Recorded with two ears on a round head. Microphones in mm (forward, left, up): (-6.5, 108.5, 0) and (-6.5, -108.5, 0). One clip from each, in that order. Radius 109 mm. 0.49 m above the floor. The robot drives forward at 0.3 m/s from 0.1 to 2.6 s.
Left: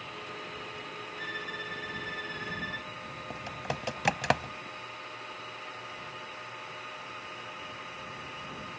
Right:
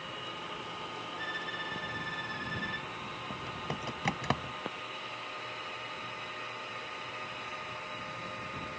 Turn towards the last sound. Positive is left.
turn(degrees=35)  # may be behind; listen again after turning